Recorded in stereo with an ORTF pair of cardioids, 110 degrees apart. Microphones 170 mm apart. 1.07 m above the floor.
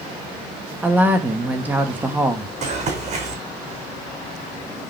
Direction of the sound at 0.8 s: 10° right.